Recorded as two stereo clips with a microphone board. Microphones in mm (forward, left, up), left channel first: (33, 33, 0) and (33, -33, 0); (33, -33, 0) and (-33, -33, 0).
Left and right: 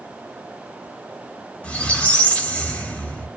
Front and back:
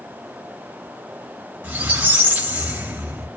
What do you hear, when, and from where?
1.6 s a squeak: 140° left, 0.6 m